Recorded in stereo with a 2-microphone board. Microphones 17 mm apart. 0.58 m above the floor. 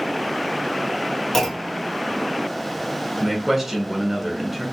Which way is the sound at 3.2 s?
10° right (ahead or behind).